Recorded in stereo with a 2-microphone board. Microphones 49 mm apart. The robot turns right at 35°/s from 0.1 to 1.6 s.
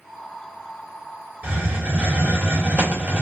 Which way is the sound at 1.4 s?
25° right (ahead or behind).